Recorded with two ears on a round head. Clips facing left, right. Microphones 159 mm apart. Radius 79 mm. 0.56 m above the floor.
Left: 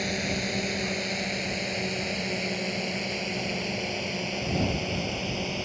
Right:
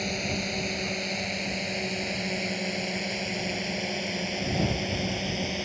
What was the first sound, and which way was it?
A drone, 5° left (ahead or behind).